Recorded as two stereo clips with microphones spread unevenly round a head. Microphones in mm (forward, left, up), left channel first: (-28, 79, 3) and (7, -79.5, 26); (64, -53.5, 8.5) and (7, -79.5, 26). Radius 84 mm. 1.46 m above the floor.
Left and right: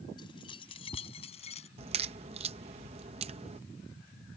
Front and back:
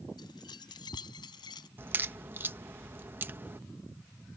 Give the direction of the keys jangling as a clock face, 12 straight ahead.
11 o'clock.